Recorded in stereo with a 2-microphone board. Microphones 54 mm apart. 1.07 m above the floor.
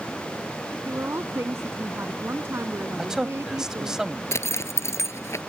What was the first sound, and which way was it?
A woman speaking, 50° right (ahead or behind).